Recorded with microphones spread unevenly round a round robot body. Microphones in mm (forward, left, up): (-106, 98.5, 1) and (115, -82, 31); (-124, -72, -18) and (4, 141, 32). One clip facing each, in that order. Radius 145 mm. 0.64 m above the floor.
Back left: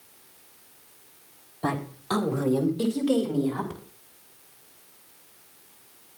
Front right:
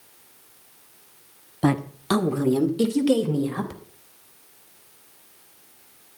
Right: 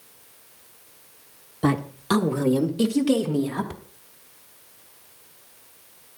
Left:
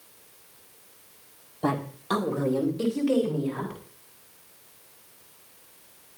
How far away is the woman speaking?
About 1.6 m.